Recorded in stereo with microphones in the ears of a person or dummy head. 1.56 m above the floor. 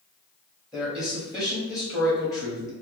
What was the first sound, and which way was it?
A man speaking, centre (ahead or behind).